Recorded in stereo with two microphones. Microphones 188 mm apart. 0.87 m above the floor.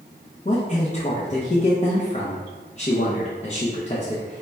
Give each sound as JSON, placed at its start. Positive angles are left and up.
{"t": 0.5, "sound": "a man speaking", "side_deg": 35, "distance_m": 0.5}